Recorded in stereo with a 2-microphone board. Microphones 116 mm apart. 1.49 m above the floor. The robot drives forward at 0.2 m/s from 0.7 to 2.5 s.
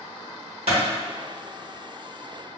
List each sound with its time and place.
0.7 s a clap: 65° right (ahead or behind), 1.4 m